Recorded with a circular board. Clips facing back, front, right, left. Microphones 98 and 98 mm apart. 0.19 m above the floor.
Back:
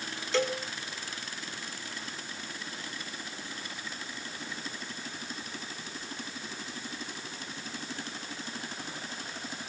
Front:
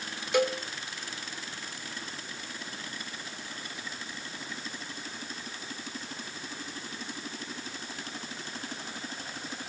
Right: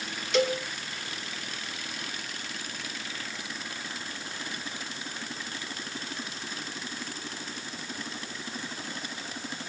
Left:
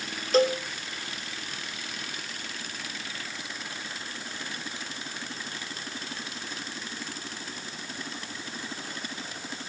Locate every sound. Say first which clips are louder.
0.3 s a cowbell: front 3 dB, left 3 dB; 70° left, 1.1 m